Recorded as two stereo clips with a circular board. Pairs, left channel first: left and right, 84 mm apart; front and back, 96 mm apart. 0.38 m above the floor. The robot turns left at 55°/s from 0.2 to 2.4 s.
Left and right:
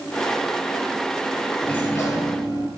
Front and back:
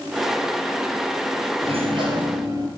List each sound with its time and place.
1.6 s a sliding door: 170° left, 5 m; by 2.7 s 130° left, 5 m